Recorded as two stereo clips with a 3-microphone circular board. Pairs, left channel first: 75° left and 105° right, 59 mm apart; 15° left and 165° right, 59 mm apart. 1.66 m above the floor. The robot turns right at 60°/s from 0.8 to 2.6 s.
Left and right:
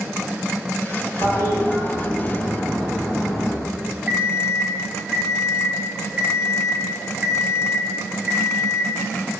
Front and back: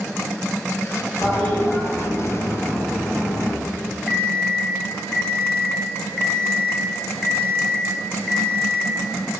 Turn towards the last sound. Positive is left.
turn(degrees=-70)